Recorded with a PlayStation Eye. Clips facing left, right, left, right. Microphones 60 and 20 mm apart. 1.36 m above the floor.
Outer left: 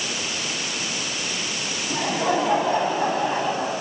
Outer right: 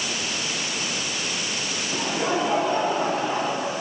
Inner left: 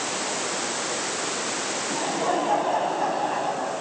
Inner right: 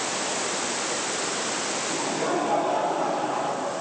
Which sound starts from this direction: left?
Laughter, at 1.9 s.